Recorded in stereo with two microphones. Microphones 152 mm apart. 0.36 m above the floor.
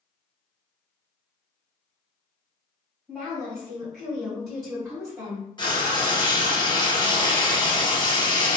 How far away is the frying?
About 1.4 m.